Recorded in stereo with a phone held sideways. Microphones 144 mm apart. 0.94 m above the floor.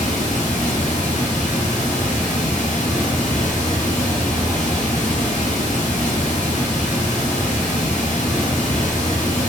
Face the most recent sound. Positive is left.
turn(degrees=65)  # may be behind; listen again after turning